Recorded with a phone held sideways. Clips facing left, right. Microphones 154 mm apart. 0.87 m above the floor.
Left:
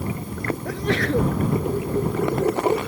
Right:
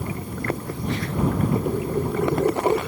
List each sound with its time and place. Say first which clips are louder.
0.7 s a sneeze: left 5 dB; 80° left